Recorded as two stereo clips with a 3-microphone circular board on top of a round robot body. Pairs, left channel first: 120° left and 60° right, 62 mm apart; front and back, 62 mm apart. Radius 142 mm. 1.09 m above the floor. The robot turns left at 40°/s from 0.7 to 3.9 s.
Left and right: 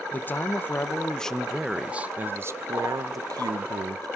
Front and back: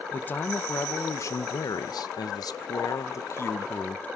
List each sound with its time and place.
0.1 s a man speaking: 60° left, 0.8 m; by 4.2 s 70° right, 0.8 m